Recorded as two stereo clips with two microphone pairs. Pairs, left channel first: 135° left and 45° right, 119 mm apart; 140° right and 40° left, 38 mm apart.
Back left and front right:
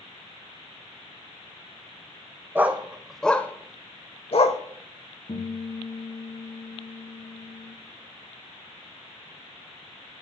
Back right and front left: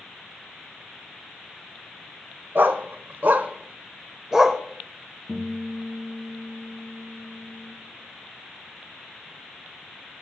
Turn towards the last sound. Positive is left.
turn(degrees=155)